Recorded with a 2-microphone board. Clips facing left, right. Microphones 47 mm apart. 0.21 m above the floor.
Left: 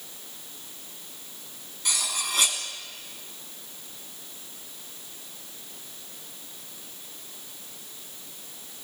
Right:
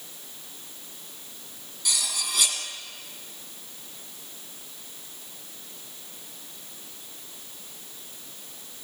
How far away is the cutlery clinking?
About 1.1 m.